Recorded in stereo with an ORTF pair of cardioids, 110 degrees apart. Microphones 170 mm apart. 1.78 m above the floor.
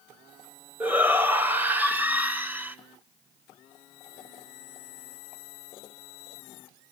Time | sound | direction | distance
0.8 | a shout | 10° right | 1.6 m